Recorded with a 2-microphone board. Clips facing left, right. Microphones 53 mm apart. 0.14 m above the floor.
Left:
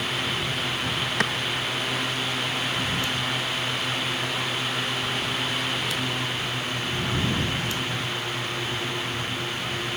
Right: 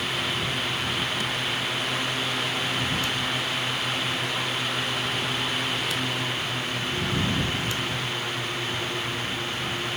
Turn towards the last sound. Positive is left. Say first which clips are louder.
# left 5 dB
turn(degrees=70)  # may be behind; listen again after turning